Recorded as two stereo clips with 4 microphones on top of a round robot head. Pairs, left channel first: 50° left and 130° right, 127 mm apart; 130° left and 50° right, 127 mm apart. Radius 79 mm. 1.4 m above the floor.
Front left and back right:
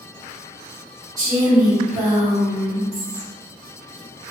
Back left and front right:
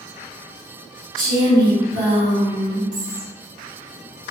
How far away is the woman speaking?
About 1.8 m.